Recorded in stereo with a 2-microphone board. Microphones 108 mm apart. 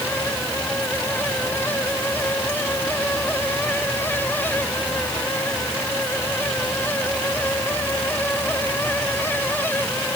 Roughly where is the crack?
I don't hear a crack.